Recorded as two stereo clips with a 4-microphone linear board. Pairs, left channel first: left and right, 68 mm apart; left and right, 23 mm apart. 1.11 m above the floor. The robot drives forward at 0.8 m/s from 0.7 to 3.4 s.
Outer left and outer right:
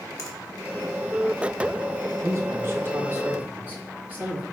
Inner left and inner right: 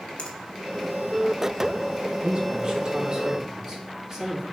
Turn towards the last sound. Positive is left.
turn(degrees=-25)  # may be behind; listen again after turning